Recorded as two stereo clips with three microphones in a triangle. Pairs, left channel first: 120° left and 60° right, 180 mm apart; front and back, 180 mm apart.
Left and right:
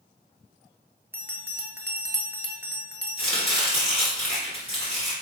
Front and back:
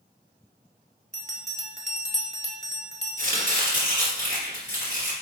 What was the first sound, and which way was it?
A bell, 135° right.